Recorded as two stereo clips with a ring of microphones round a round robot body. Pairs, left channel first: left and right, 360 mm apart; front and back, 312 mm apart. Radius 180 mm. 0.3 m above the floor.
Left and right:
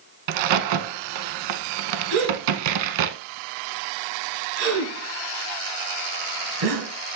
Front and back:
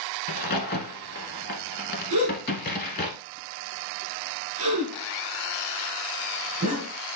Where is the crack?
65° right, 0.8 m.